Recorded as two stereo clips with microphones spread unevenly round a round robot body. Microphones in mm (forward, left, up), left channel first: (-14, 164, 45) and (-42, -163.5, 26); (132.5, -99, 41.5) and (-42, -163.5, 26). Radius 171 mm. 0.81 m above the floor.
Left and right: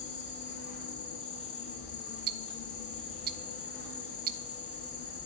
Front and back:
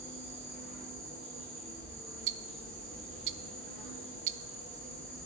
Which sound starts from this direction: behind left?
An insect, at 0.0 s.